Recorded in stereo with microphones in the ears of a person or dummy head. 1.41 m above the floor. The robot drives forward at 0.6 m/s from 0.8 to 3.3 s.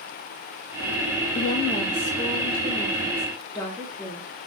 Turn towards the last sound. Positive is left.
turn(degrees=15)  # may be behind; listen again after turning